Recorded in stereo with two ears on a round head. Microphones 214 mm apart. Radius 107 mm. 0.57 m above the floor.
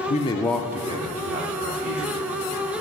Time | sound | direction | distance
0.1 | a man speaking | 30° left (ahead or behind) | 0.7 m